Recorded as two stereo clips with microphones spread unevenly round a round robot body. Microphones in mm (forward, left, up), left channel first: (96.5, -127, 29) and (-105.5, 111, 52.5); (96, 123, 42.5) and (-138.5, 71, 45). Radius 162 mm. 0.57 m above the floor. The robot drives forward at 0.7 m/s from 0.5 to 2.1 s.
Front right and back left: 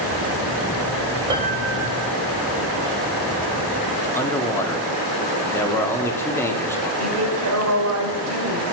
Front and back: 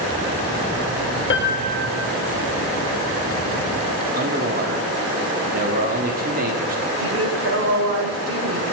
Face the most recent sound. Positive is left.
turn(degrees=170)